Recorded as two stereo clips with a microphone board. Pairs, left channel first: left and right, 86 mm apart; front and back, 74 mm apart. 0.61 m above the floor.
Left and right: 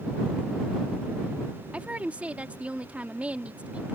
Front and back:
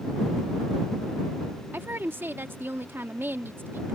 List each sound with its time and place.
1.7 s a woman speaking: 150° right